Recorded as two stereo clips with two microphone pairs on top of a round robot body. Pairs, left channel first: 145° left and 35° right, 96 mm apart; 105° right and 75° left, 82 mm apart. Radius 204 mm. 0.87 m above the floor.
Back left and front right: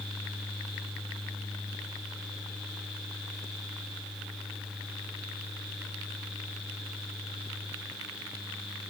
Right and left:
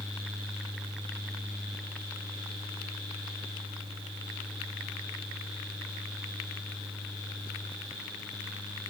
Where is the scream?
No scream in this recording.